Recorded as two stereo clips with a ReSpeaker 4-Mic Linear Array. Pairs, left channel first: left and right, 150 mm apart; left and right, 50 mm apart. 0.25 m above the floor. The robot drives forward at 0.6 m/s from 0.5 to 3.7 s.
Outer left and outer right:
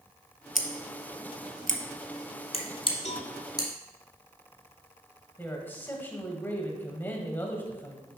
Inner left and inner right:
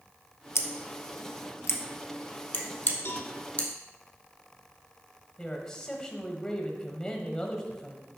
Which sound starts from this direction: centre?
A man speaking, at 5.4 s.